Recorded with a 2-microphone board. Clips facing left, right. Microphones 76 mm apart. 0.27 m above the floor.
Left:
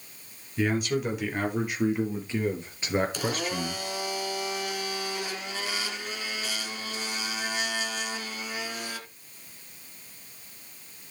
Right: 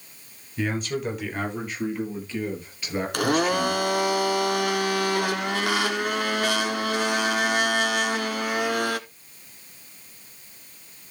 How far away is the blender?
About 0.9 m.